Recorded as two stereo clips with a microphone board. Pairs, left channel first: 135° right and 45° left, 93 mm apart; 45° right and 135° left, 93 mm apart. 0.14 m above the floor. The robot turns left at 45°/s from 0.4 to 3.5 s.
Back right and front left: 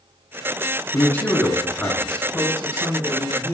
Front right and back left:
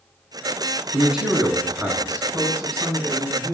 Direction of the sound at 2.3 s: 105° right.